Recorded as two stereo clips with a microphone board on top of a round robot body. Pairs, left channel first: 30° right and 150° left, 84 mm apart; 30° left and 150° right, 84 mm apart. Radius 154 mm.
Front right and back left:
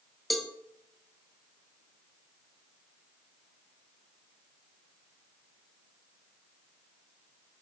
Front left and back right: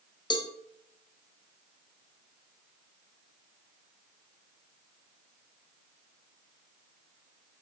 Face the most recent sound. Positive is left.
turn(degrees=60)